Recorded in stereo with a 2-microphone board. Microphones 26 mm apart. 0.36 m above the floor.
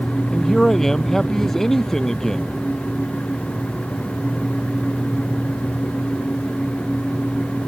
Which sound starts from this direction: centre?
A man speaking, at 0.3 s.